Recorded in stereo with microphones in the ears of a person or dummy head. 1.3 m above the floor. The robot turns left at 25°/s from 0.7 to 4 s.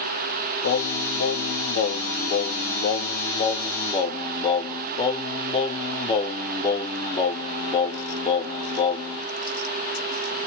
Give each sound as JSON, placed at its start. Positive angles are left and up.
{"t": 0.6, "sound": "singing", "azimuth_deg": 115, "distance_m": 0.5}